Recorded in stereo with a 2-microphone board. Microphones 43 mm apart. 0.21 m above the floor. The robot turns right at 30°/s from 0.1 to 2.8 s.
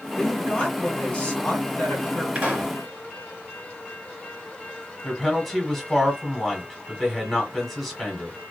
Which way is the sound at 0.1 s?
25° left.